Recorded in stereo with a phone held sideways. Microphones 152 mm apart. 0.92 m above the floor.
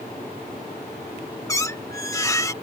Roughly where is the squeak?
Centre.